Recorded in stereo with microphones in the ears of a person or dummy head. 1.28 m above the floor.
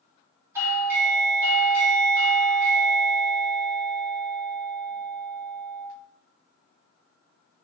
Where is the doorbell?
5° right (ahead or behind), 1.2 m.